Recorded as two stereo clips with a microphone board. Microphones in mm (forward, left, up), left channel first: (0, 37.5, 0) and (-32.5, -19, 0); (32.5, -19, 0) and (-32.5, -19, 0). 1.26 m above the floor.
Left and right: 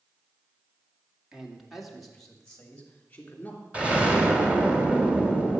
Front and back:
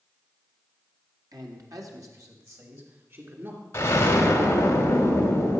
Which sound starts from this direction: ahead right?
An explosion, at 3.7 s.